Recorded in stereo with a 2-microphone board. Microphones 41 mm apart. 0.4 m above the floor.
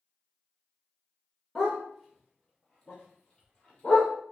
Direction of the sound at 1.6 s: 5° left (ahead or behind).